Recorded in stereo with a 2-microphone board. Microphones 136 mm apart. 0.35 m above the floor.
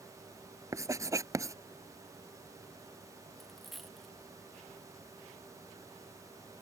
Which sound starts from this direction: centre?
A dropped coin, at 3.4 s.